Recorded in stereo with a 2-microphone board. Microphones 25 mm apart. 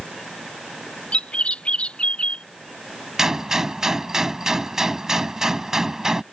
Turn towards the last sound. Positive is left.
turn(degrees=-25)  # may be behind; listen again after turning